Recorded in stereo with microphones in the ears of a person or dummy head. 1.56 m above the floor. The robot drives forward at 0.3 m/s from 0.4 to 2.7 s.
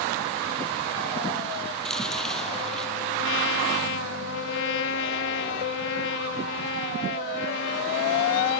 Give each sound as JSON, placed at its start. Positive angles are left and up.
{"t": 1.9, "sound": "chewing", "side_deg": 5}
{"t": 3.2, "sound": "a trumpet", "side_deg": 75}